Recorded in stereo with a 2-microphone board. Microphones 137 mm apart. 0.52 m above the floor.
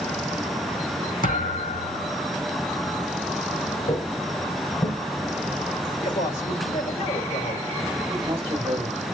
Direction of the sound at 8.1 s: 30° right (ahead or behind).